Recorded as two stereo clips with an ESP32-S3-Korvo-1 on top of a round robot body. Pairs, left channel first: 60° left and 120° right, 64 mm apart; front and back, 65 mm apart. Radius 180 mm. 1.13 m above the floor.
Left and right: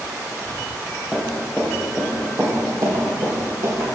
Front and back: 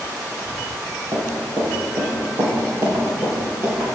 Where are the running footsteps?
155° left, 3 m; by 3.9 s 125° right, 3.5 m.